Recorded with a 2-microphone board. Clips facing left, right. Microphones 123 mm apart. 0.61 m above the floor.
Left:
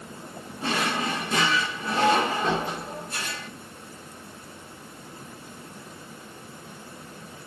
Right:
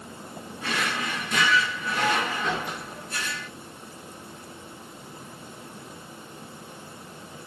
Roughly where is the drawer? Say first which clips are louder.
Left 3 dB; left.